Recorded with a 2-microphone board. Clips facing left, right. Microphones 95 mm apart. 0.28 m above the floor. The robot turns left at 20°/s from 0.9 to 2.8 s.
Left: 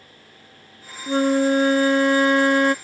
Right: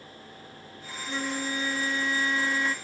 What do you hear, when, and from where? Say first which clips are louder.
1.1 s a flute: left 14 dB; 115° left; by 2.8 s 80° left